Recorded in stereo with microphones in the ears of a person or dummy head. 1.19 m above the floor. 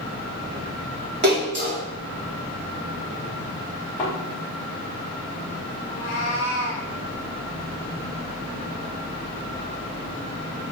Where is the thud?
15° left (ahead or behind), 1.1 m.